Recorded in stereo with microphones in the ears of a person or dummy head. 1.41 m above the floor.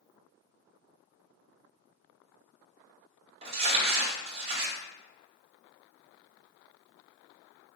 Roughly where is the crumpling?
Right.